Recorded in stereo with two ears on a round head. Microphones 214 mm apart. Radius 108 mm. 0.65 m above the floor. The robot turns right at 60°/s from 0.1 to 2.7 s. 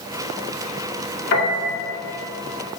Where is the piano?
45° left (ahead or behind), 1.8 m; by 1.8 s 55° left (ahead or behind), 1.8 m.